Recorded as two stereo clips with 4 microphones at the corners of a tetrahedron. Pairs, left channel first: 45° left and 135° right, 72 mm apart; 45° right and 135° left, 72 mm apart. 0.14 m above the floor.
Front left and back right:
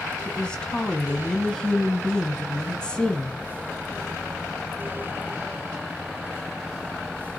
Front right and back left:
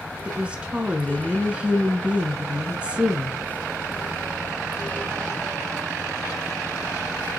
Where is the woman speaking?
95° left, 1.1 m.